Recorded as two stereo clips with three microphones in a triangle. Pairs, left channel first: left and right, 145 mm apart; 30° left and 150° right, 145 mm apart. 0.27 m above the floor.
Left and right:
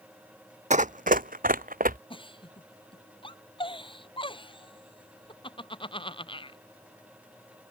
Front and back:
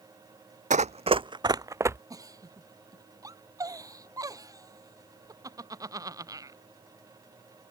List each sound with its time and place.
0.7 s running footsteps: 120° right; by 2.0 s 80° right
2.1 s a giggle: 145° left